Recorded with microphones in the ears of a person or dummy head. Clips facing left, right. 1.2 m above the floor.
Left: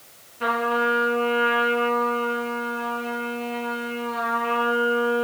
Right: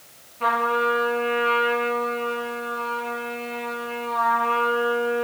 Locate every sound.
0.4 s a trumpet: 15° left (ahead or behind), 3.5 m